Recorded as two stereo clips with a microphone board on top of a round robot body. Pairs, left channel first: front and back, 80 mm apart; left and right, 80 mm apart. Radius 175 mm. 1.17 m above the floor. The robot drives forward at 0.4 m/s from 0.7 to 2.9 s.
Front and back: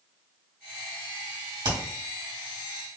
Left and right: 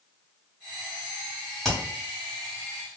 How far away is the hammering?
About 2.0 m.